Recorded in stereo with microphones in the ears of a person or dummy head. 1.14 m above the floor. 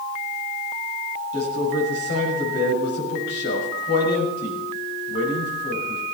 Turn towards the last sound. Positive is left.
turn(degrees=65)  # may be behind; listen again after turning